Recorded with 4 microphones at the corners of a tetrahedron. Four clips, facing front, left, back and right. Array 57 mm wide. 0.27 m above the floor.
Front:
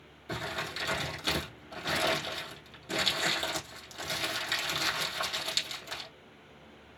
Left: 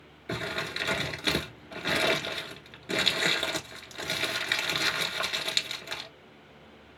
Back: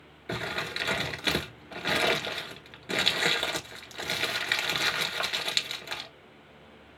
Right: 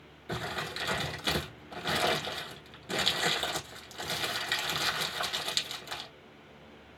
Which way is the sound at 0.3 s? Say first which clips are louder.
Left 3 dB, back 3 dB; 140° left.